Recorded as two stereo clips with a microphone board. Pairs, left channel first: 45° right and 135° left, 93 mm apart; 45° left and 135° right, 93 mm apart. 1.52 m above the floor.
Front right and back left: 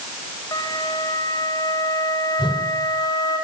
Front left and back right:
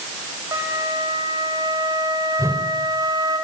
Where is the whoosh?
75° right, 5.5 m.